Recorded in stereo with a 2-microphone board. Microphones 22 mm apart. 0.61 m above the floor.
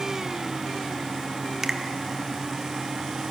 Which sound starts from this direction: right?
A finger snap, at 1.6 s.